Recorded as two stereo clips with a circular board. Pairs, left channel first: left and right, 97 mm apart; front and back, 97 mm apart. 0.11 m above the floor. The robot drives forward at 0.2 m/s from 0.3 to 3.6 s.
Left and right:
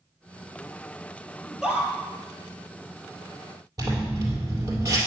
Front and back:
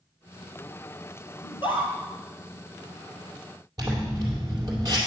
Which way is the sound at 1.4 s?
15° right.